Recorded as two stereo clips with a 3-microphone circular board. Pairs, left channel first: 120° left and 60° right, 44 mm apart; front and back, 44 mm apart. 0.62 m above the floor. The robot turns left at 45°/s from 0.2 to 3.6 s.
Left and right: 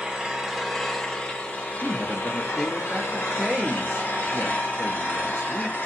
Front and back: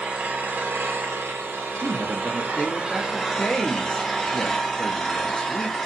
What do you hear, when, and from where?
0.0 s an engine running: 125° right, 0.7 m; by 5.9 s 80° left, 0.7 m
1.8 s a man speaking: 70° left, 0.6 m; by 5.8 s 10° right, 0.6 m